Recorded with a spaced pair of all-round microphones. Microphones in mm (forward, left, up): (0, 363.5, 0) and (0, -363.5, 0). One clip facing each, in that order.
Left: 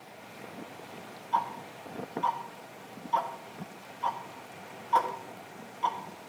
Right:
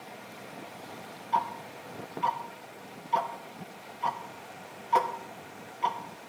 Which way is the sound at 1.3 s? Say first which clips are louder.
Right 1 dB; 55° right (ahead or behind).